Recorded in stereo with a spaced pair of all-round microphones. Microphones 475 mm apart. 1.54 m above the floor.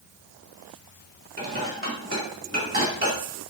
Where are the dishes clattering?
25° right (ahead or behind), 2.5 m.